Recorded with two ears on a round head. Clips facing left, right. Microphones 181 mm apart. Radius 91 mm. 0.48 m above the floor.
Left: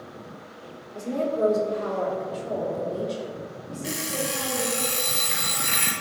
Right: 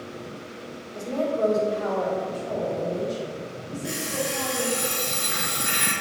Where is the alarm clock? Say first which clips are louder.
Even; 75° left (ahead or behind), 2 m.